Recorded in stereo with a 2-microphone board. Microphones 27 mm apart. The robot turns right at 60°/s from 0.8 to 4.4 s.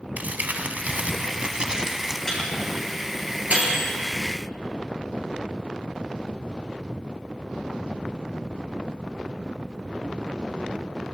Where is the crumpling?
90° right, 1.3 m; by 2.2 s 10° right, 1.3 m.